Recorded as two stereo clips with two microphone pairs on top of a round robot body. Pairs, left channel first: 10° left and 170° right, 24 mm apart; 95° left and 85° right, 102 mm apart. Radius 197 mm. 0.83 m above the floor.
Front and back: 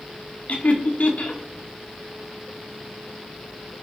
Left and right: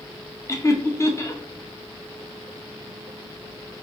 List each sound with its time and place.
0.5 s laughter: 40° left, 1.8 m